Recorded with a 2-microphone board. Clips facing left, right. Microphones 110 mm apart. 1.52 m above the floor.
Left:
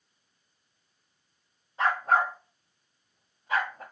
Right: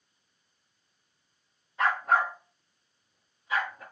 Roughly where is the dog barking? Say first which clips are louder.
Left 1 dB; left.